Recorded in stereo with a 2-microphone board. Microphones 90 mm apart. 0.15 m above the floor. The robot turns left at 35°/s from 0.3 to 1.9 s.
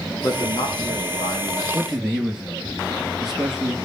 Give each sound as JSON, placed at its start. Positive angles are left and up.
{"t": 0.2, "sound": "a man speaking", "azimuth_deg": 125, "distance_m": 9.0}
{"t": 1.7, "sound": "a man speaking", "side_deg": 0, "distance_m": 3.0}